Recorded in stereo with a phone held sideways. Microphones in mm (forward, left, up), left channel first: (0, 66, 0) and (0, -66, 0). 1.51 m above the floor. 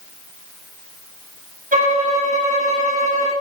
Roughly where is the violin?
Right.